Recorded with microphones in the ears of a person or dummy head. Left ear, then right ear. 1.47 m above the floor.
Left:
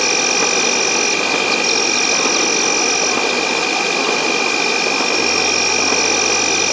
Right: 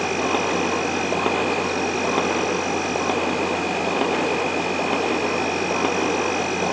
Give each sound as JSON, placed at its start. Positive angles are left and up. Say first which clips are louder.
{"t": 0.0, "sound": "an insect", "louder": "left 7 dB", "side_deg": 75}